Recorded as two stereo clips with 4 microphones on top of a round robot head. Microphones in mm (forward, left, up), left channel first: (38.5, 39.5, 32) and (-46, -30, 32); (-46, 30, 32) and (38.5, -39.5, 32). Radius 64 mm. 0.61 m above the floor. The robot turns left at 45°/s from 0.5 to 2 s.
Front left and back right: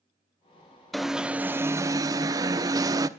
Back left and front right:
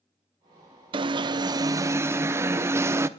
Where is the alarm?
50° right, 0.9 m; by 3.1 s 95° right, 0.9 m.